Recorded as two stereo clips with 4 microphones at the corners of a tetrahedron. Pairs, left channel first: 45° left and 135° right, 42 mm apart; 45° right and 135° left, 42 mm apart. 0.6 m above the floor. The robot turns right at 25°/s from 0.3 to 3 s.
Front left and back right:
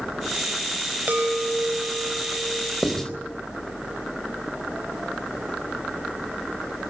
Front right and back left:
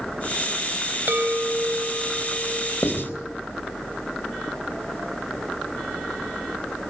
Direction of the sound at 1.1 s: 170° left.